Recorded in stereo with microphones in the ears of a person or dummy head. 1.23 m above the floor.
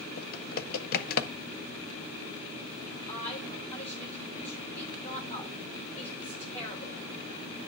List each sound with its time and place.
0.2 s typing on a keyboard: 55° left (ahead or behind), 0.8 m
3.1 s a woman speaking: 15° left (ahead or behind), 4 m